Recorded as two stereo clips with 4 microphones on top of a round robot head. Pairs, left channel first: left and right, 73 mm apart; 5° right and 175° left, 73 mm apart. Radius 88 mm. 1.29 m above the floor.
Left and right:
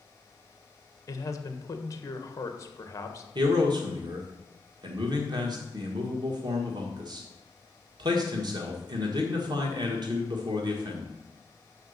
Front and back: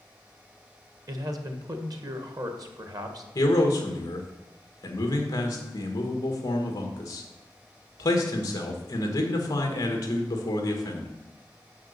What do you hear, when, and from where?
1.1 s a man speaking: 140° left, 1.3 m
3.4 s a man speaking: 55° right, 1.5 m